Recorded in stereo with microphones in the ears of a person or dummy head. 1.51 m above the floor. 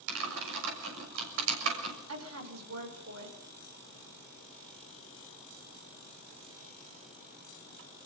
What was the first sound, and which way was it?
Typing on a keyboard, 80° right.